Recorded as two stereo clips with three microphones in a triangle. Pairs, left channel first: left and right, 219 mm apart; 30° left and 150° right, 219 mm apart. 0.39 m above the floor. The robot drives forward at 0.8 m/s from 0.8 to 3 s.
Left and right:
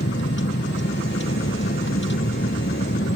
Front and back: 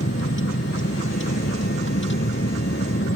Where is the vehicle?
60° left.